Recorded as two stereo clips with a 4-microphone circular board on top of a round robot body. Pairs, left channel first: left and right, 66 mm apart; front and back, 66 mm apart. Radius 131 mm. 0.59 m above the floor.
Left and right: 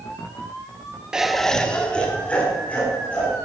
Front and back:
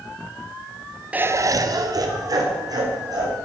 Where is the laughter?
150° right, 0.5 m; by 3.3 s 160° left, 3 m.